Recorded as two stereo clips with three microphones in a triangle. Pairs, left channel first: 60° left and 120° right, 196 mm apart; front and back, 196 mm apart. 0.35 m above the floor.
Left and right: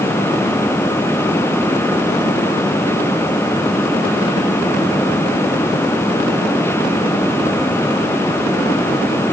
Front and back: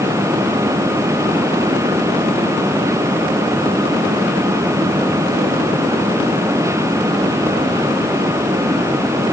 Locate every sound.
Only background noise.